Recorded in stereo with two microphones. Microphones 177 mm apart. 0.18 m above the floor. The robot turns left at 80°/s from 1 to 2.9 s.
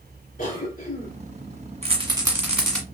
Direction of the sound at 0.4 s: 50° left (ahead or behind).